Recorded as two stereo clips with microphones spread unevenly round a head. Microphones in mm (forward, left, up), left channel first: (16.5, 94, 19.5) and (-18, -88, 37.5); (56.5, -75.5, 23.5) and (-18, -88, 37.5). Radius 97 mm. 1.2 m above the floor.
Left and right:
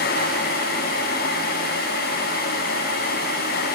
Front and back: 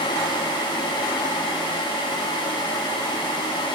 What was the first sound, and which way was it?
Only background noise.